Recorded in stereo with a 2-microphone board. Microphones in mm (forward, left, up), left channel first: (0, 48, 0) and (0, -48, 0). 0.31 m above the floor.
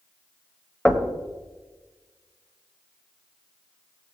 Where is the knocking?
5° left (ahead or behind), 1.2 m.